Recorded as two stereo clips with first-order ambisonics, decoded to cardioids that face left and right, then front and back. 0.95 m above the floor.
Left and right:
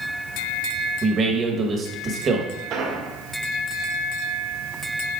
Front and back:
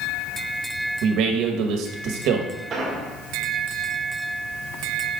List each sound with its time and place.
1.0 s a man speaking: 155° right, 1.0 m
2.7 s an explosion: 120° right, 1.4 m